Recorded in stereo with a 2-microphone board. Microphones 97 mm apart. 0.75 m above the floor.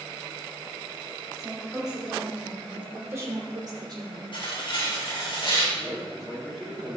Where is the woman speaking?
Centre (ahead or behind), 3.5 m; by 4.2 s 55° right (ahead or behind), 2 m.